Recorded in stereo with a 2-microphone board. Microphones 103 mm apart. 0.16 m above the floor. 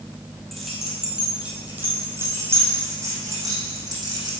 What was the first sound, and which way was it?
Keys jangling, 5° left (ahead or behind).